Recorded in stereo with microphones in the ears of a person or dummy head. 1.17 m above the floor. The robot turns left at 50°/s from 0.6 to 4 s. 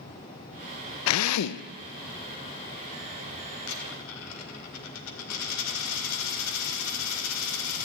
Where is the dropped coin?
70° left (ahead or behind), 2 m; by 7.9 s 75° left (ahead or behind), 2 m.